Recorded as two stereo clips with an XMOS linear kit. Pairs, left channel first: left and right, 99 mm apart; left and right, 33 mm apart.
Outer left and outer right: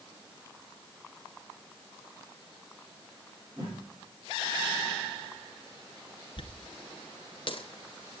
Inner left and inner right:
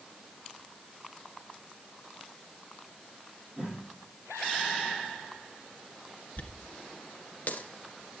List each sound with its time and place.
3.6 s a whoosh: 35° right (ahead or behind), 7.5 m
6.4 s a dropped coin: 60° left (ahead or behind), 1.2 m